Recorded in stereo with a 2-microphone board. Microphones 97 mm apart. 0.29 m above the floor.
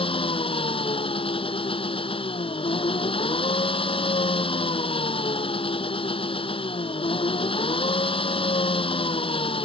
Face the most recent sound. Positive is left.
turn(degrees=70)  # may be behind; listen again after turning